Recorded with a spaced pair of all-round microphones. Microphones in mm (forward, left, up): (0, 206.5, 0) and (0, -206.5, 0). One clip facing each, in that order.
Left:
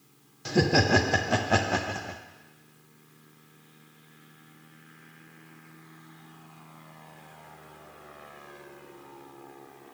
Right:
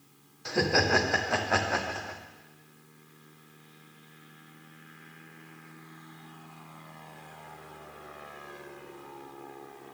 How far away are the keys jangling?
No keys jangling in this recording.